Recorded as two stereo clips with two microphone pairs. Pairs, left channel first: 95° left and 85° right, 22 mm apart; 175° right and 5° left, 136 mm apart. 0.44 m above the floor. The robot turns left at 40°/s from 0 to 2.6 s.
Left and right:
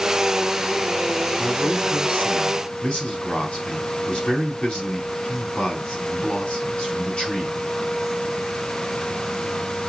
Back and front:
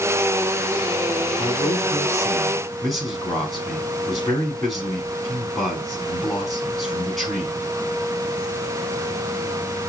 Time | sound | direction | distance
1.4 | a man speaking | 145° left | 5 m